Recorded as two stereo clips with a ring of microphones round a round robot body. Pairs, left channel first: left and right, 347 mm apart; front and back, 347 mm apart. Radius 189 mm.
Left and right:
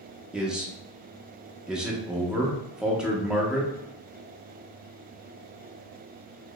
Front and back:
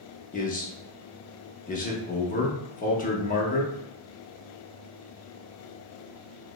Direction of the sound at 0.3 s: 5° right.